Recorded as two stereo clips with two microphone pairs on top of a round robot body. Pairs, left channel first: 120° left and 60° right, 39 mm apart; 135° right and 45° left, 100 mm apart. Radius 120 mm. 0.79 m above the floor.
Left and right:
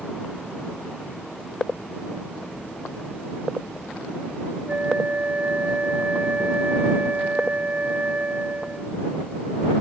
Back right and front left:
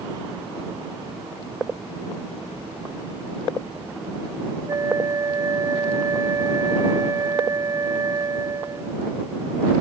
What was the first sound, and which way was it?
A flute, 10° right.